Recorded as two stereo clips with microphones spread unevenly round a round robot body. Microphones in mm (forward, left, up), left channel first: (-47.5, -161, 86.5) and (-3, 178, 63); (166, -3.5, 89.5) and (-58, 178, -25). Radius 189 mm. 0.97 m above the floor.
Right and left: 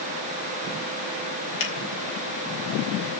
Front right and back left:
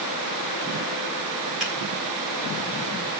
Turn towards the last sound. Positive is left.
turn(degrees=-130)